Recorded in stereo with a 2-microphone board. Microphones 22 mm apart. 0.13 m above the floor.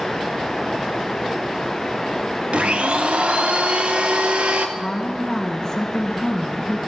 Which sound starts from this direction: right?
A blender, at 2.5 s.